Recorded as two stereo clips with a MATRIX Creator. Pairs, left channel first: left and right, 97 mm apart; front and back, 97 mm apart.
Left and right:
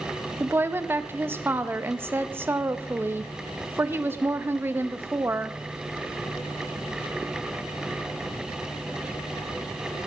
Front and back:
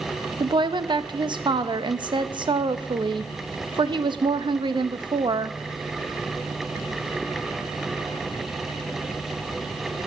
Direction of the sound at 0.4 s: 155° right.